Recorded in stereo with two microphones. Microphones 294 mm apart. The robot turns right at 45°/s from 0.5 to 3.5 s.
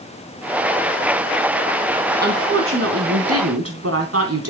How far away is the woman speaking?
About 2.5 m.